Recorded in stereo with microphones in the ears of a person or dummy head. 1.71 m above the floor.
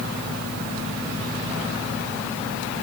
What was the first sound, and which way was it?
Only background noise.